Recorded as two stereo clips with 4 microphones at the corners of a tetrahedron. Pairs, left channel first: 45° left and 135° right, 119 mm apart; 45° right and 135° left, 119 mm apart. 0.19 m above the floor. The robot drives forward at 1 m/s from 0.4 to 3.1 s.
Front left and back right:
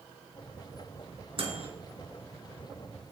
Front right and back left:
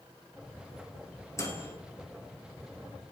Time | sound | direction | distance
1.4 | a microwave | 105° right | 3 m